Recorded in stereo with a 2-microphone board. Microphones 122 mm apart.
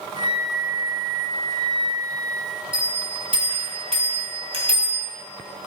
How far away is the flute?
About 0.6 m.